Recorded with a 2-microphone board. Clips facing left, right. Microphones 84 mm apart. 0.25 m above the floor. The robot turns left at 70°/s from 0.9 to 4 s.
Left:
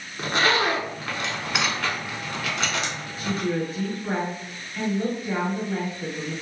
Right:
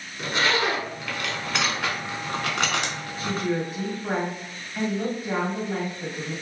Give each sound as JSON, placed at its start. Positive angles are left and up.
{"t": 0.2, "sound": "a zipper", "side_deg": 50, "distance_m": 0.7}
{"t": 3.2, "sound": "a woman speaking", "azimuth_deg": 15, "distance_m": 1.2}